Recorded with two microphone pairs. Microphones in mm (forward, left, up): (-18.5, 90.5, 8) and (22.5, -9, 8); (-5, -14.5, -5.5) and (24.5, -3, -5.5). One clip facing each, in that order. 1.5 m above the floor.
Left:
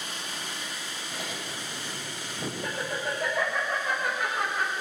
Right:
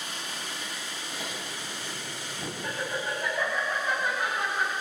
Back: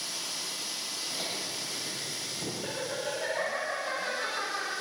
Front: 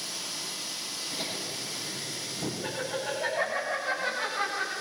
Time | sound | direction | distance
1.1 | laughter | 120° left | 8.5 m